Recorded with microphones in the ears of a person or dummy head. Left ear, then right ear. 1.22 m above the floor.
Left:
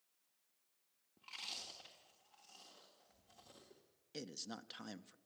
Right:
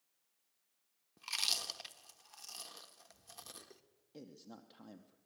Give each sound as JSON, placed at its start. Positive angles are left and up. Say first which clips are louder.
{"t": 1.2, "sound": "chewing", "louder": "right 11 dB", "side_deg": -60, "distance_m": 1.4}
{"t": 4.1, "sound": "a man speaking", "louder": "left 6 dB", "side_deg": 55, "distance_m": 0.9}